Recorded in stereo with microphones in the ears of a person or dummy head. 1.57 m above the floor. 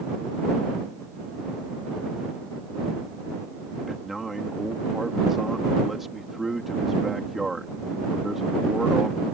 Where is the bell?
No bell in this recording.